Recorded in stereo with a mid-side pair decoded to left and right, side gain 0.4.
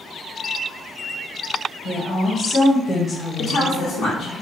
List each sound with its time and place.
1.9 s a woman speaking: 70° left, 1.1 m; by 4.4 s 10° left, 1.6 m
3.4 s a woman speaking: 65° left, 0.8 m